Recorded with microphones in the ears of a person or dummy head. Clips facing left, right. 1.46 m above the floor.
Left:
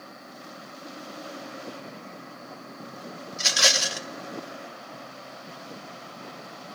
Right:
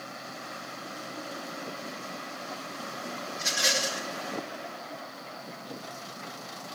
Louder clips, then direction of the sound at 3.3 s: Left 4 dB; 80° left.